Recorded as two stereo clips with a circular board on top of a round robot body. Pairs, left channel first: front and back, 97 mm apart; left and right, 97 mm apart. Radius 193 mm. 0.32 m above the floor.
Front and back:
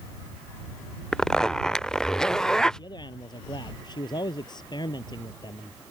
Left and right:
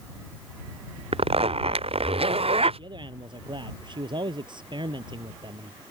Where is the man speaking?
45° right.